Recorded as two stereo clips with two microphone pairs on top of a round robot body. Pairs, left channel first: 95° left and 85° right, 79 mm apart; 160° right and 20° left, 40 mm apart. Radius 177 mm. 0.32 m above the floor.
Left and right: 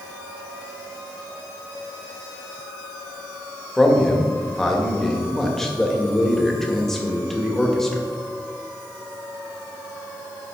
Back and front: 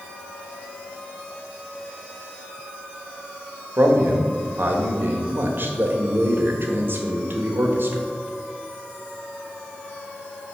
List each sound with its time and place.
3.8 s a man speaking: 10° left, 2 m